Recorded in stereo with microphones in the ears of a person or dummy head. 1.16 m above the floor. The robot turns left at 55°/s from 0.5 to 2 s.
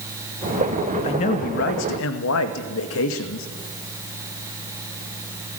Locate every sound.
1.0 s a man speaking: 155° left, 2 m; by 3.5 s 100° left, 2 m